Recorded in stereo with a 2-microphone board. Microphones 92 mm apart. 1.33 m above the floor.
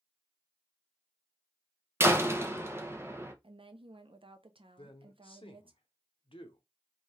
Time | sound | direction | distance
2.0 | a door slam | 25° right (ahead or behind) | 0.6 m
3.4 | a woman speaking | 75° right (ahead or behind) | 0.5 m
4.8 | a man speaking | 75° left (ahead or behind) | 0.8 m